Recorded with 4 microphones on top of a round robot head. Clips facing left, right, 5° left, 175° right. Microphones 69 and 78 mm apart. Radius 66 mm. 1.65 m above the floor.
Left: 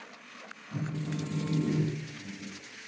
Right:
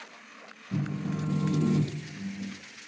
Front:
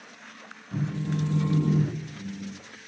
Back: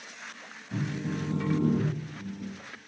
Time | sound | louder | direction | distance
0.7 | a phone buzzing | right 3 dB, front 2 dB | 100° right | 0.5 m